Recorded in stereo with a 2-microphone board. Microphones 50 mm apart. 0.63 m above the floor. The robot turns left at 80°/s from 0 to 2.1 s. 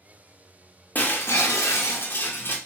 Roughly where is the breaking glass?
Behind left.